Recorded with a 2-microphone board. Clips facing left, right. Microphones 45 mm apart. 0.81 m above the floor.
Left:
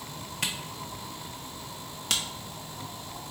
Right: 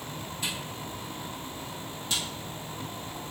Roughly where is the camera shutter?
Left.